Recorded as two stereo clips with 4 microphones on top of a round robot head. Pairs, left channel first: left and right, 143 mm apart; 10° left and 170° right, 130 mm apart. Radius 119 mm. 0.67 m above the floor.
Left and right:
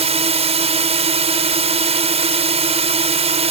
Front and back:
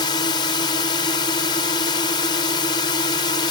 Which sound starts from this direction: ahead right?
A drone, at 0.0 s.